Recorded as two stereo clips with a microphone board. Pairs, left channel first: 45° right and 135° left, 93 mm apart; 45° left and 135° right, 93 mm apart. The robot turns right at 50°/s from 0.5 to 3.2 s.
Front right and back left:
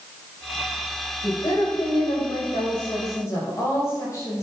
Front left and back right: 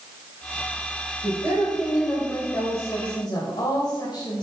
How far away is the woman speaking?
About 3.5 m.